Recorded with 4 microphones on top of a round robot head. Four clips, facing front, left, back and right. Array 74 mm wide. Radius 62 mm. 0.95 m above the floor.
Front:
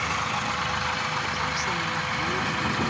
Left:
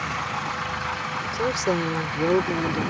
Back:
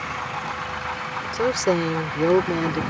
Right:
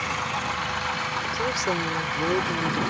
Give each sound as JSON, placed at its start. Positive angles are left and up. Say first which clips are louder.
{"t": 1.3, "sound": "a woman speaking", "louder": "left 4 dB, back 6 dB", "azimuth_deg": 175}